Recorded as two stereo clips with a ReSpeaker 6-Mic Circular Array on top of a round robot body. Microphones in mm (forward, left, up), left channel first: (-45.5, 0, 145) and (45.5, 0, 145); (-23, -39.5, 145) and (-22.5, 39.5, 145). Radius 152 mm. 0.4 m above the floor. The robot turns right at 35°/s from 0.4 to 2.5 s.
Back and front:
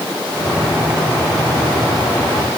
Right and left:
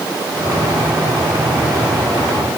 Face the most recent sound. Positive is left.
No sound to turn to.